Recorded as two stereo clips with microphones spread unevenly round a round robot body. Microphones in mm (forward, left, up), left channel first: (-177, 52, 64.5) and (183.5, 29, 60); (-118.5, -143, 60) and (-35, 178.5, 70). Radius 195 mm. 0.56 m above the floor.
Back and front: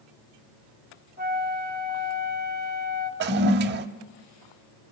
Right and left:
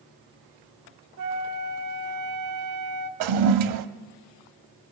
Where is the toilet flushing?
55° left, 0.5 m.